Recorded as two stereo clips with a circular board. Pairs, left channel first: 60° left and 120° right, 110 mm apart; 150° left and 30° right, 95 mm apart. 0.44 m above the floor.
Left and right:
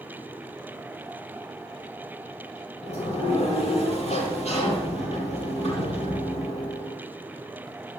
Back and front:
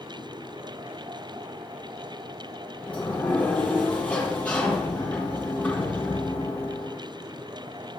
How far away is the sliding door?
About 5.5 m.